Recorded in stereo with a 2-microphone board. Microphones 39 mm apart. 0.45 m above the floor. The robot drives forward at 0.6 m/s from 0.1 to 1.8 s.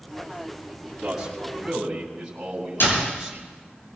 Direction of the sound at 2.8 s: 70° left (ahead or behind).